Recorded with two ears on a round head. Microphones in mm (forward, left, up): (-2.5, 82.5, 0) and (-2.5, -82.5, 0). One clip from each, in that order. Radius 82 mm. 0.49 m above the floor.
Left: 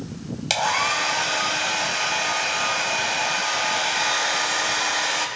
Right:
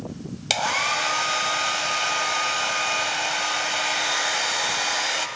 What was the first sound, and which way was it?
A hair dryer, 15° right (ahead or behind).